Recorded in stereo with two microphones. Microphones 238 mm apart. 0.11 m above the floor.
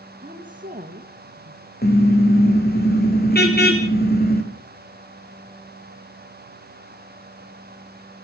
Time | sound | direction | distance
0.2 | a woman speaking | 35° right (ahead or behind) | 3 m
1.8 | a car horn | 45° left (ahead or behind) | 3.5 m